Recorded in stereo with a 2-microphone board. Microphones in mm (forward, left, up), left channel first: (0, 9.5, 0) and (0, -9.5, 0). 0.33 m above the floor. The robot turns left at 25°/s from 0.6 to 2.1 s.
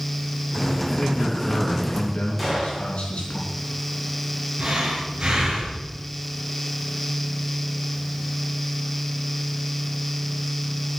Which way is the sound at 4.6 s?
45° right (ahead or behind).